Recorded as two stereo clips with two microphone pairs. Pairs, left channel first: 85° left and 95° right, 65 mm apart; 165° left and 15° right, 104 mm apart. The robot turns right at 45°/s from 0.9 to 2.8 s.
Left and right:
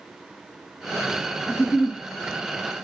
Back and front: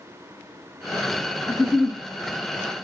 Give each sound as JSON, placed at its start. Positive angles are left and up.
{"t": 1.5, "sound": "a giggle", "azimuth_deg": 105, "distance_m": 2.0}